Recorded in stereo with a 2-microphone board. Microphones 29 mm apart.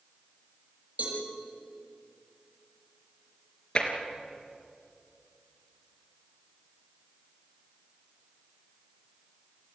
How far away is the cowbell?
About 7.5 m.